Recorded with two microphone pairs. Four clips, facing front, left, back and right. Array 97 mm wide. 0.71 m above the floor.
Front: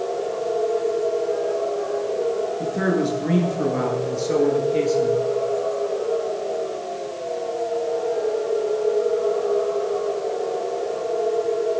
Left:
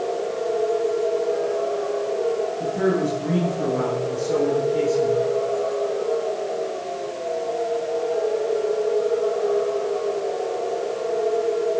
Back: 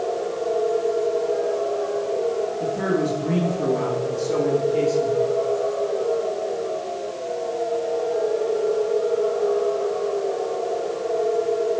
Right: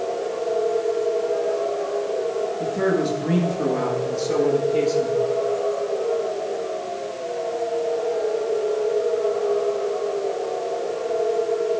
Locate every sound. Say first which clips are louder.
2.6 s a man speaking: right 1 dB, front 1 dB; 10° right, 9.5 m; by 5.2 s 15° right, 10.5 m